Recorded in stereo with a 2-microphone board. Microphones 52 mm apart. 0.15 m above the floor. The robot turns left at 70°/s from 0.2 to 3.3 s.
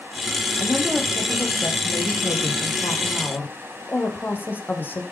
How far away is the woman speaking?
About 6.5 m.